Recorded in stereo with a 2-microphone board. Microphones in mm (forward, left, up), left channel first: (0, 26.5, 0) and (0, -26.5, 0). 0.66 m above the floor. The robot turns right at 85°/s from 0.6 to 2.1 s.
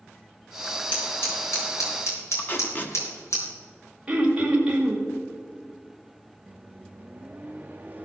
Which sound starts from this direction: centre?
Throat clearing, at 4.1 s.